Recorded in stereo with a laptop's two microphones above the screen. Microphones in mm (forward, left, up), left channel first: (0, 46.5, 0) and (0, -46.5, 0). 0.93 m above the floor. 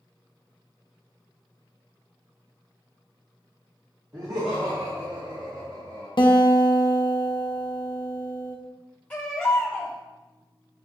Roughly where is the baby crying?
Centre.